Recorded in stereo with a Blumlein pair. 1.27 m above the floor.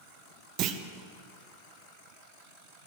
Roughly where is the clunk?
Ahead right.